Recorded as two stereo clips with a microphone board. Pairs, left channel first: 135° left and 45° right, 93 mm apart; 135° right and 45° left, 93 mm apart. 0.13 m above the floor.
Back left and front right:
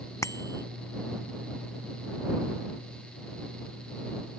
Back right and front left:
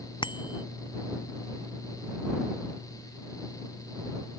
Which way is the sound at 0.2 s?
170° right.